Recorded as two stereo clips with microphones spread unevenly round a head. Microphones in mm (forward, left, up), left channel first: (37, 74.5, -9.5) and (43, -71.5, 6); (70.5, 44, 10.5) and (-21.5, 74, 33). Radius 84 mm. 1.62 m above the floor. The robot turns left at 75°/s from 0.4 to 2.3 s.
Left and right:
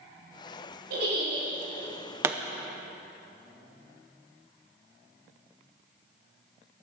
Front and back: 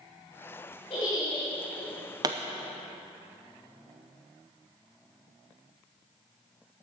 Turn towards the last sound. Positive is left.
turn(degrees=-160)